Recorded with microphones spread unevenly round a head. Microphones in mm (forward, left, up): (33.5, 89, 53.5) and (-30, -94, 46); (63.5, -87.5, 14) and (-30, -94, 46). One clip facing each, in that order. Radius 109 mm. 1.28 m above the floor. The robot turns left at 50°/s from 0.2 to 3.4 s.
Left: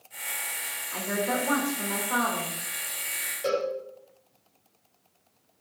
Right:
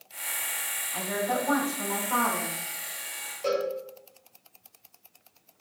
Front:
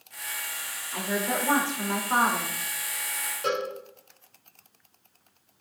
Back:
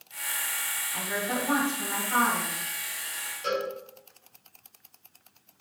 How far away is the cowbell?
About 4 m.